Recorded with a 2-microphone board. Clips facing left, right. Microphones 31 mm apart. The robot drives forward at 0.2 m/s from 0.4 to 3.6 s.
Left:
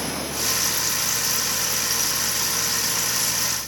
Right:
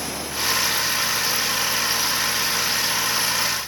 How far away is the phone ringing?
No phone ringing in this recording.